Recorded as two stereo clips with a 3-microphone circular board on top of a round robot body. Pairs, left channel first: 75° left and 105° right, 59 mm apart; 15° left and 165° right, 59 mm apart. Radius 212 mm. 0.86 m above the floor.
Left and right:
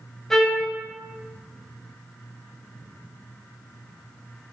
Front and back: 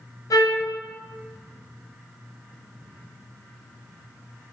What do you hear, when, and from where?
0.3 s a trumpet: 10° right, 1.6 m